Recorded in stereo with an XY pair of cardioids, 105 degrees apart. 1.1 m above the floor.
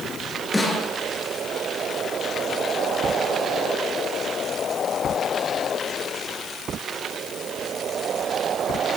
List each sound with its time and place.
0.5 s a snare drum: 15° left, 10 m